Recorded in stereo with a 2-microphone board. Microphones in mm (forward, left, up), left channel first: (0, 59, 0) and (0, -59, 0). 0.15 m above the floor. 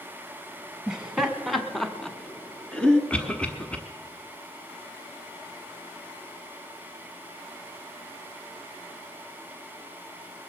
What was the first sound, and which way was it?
Laughter, 5° right (ahead or behind).